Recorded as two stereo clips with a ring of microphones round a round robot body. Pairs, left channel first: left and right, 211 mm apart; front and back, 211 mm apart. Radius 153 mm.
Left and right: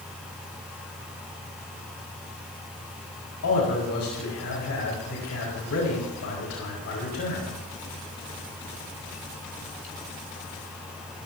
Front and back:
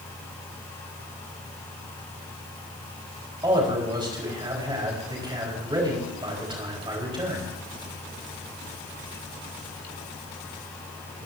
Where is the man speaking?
110° left, 4.5 m.